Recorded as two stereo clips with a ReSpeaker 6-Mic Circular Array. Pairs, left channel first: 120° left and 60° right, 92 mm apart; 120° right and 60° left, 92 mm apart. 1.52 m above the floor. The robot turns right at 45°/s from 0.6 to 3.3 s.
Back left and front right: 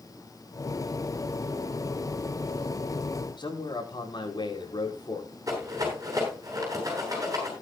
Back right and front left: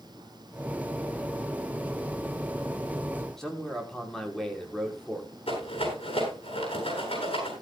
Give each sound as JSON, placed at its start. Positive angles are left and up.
{"t": 3.4, "sound": "a man speaking", "azimuth_deg": 155, "distance_m": 5.0}
{"t": 5.5, "sound": "a rattle", "azimuth_deg": -115, "distance_m": 8.0}